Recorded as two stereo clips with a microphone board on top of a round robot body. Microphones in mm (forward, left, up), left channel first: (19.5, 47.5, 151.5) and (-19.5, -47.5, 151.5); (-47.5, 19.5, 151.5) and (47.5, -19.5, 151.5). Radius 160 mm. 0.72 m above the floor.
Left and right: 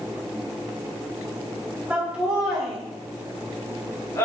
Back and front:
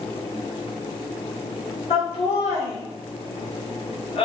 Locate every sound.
1.9 s laughter: 170° left, 2.5 m; by 4.2 s 130° left, 2.5 m